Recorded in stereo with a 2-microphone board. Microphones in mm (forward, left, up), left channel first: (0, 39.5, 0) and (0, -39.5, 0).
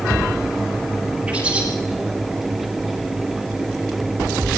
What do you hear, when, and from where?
1.3 s a bird: 10° right (ahead or behind), 9 m